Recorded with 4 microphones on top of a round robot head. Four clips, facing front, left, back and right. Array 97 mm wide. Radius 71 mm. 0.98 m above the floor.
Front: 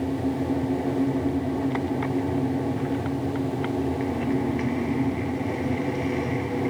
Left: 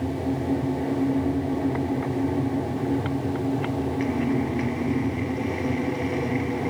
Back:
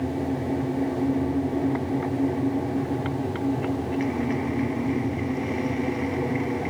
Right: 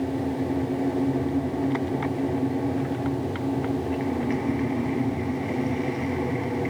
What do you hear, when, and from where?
Only background noise.